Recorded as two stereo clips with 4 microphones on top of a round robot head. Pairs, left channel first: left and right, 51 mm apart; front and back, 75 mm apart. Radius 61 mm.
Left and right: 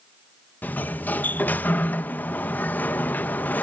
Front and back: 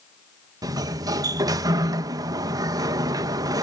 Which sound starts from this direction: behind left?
A sliding door, at 0.6 s.